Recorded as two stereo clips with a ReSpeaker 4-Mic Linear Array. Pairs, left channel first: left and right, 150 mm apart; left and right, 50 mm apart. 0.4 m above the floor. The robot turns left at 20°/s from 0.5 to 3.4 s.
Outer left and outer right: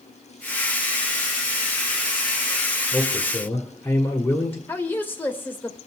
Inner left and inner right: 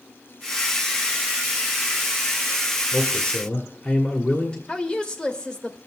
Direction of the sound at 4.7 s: 15° left (ahead or behind).